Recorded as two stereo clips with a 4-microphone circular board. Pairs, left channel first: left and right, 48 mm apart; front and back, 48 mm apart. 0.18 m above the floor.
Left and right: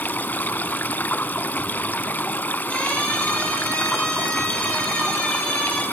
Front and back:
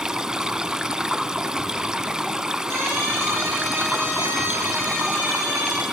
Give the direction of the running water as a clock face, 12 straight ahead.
8 o'clock.